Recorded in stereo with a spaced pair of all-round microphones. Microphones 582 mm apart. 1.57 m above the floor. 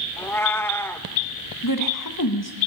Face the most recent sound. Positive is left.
turn(degrees=35)  # may be behind; listen again after turning